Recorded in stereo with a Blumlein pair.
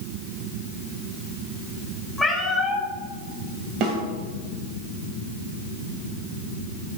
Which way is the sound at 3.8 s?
35° right.